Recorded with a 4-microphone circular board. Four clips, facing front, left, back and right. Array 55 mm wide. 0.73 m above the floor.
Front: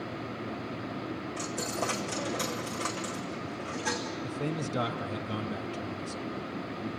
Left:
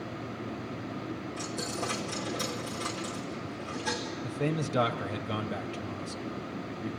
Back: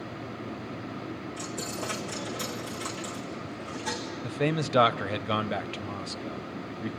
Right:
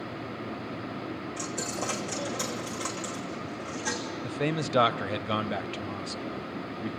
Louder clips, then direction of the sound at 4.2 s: Right 2 dB, back 8 dB; 150° right.